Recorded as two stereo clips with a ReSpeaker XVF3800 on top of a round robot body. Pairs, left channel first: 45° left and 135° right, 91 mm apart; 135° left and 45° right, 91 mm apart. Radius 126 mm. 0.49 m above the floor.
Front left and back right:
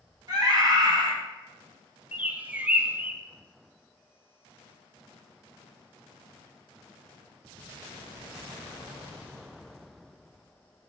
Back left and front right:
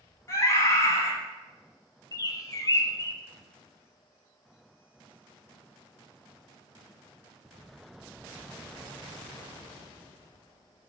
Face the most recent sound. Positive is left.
turn(degrees=160)